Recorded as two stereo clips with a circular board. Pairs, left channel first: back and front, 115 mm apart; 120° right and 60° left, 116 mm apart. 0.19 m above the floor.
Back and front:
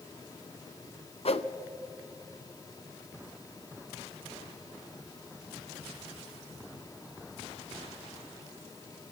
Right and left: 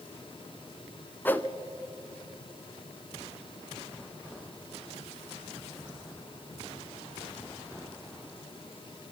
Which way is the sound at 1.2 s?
170° left.